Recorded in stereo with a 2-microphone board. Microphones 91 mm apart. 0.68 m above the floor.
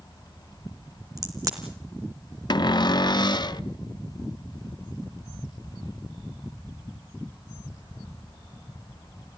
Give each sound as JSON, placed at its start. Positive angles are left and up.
{"t": 1.2, "sound": "a crack", "side_deg": -40, "distance_m": 3.0}
{"t": 2.5, "sound": "a cupboard door", "side_deg": 55, "distance_m": 0.7}